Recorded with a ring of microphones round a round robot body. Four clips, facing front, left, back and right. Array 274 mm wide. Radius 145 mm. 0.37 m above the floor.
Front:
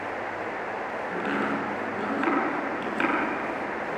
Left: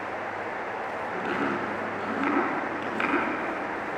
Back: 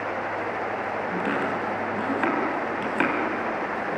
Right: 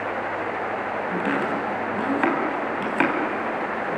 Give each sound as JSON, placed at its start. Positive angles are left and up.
{"t": 1.1, "sound": "chopping", "azimuth_deg": -110, "distance_m": 3.5}